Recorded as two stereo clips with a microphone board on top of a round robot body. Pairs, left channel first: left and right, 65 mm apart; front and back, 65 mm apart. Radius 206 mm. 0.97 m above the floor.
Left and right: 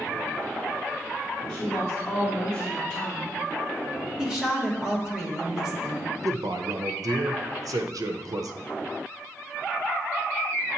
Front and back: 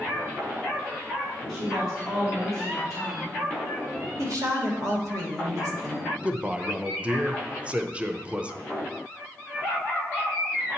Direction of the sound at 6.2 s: 110° right.